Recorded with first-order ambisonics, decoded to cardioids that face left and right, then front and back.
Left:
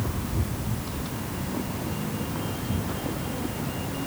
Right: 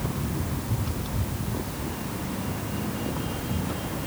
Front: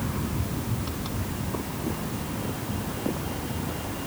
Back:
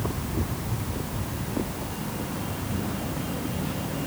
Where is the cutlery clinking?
I don't hear cutlery clinking.